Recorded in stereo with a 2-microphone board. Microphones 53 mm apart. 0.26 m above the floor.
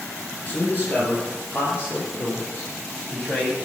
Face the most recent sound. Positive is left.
turn(degrees=35)  # may be behind; listen again after turning